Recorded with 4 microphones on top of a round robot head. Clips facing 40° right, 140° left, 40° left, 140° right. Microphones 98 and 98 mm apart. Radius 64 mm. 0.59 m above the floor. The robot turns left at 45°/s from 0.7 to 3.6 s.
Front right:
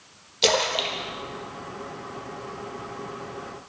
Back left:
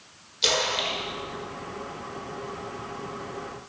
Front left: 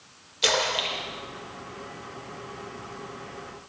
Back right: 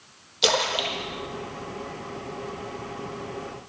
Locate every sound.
0.4 s a splash: 75° right, 0.7 m; by 2.5 s 155° right, 0.7 m